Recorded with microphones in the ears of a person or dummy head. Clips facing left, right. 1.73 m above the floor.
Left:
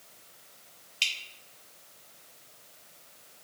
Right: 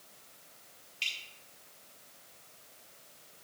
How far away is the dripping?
About 1.7 m.